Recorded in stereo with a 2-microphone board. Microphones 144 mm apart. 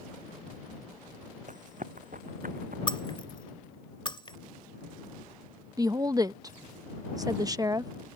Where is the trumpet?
I don't hear a trumpet.